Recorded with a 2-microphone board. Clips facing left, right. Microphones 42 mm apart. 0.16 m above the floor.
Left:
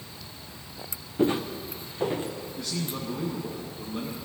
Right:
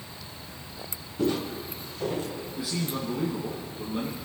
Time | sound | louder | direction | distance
1.2 | footsteps | left 2 dB | 30° left (ahead or behind) | 1.4 m
2.6 | a man speaking | right 3 dB | 10° right (ahead or behind) | 1.9 m